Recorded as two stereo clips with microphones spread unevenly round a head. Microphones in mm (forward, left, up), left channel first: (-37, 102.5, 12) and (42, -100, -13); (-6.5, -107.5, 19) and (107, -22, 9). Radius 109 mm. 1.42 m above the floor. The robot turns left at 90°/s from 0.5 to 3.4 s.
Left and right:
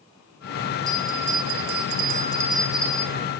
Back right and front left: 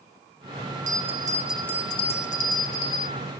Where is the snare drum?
I don't hear a snare drum.